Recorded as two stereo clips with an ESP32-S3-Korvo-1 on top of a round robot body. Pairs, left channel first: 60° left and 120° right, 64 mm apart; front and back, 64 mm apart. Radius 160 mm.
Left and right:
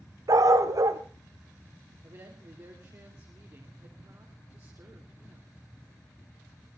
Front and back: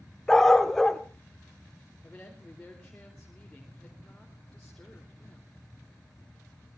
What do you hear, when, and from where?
0.3 s a dog barking: 85° right, 1.1 m
2.0 s a woman speaking: 80° right, 4 m